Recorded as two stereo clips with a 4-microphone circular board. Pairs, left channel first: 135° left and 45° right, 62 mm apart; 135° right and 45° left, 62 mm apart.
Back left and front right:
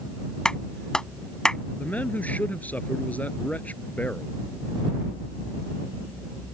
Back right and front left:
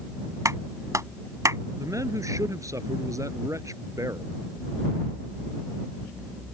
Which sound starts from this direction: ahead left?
A clap, at 0.5 s.